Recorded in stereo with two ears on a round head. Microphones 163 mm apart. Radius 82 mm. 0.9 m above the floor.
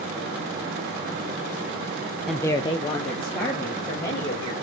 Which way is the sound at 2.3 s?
Centre (ahead or behind).